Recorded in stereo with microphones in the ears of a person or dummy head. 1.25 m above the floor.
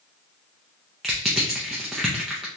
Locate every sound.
1.0 s crushing: centre (ahead or behind), 0.5 m